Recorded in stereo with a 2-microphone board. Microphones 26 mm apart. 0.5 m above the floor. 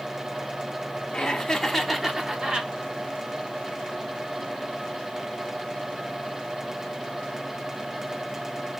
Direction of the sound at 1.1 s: 35° left (ahead or behind).